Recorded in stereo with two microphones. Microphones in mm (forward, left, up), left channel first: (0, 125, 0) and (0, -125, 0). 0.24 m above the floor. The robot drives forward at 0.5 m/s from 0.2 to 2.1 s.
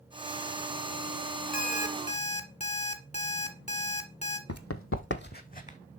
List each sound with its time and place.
1.5 s an alarm clock: 35° left (ahead or behind), 1.0 m; by 4.4 s 25° left (ahead or behind), 1.2 m
4.5 s running footsteps: 75° left (ahead or behind), 0.8 m; by 5.8 s 30° left (ahead or behind), 1.1 m